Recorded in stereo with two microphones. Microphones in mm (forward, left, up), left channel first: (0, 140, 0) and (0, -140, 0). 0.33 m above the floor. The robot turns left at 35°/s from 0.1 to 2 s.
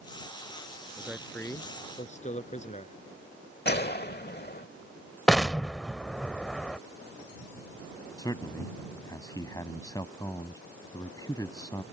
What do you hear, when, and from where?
1.0 s a man speaking: 170° right; by 3.0 s 150° left
3.6 s a gunshot: 40° left (ahead or behind)
5.3 s an explosion: centre (ahead or behind)
8.2 s a man speaking: 15° left (ahead or behind)